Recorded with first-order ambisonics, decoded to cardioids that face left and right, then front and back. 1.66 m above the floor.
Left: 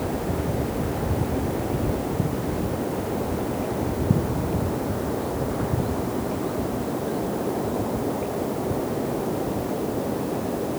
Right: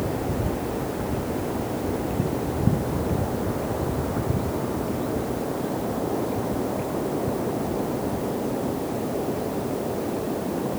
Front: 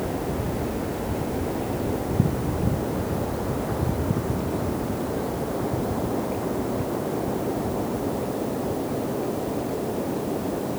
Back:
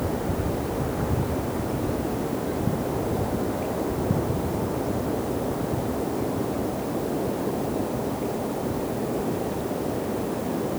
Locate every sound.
Only background noise.